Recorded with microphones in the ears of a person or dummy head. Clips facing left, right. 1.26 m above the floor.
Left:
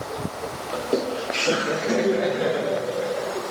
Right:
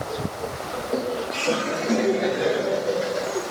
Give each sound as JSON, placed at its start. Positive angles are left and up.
{"t": 0.7, "sound": "laughter", "side_deg": 45, "distance_m": 0.8}